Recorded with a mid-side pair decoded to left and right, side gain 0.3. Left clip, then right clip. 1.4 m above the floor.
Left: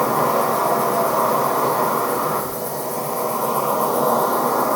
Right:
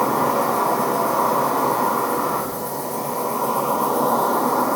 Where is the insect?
60° left, 1.3 m.